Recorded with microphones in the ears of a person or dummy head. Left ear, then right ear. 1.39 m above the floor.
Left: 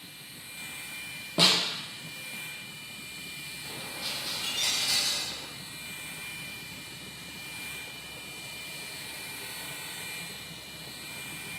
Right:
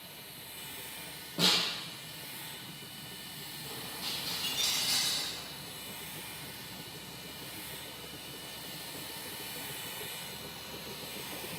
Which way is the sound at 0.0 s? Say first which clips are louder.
Left 2 dB; 50° left (ahead or behind).